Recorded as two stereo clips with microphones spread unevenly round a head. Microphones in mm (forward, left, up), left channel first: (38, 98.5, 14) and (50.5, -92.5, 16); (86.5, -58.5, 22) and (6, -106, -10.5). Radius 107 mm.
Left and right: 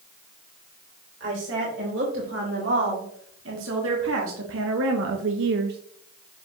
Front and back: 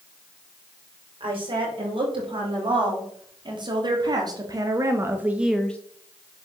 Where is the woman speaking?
125° right, 3 m; by 5.8 s 55° right, 0.6 m.